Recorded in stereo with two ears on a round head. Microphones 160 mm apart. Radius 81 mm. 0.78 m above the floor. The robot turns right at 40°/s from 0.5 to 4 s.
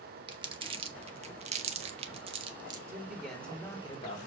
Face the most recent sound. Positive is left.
turn(degrees=30)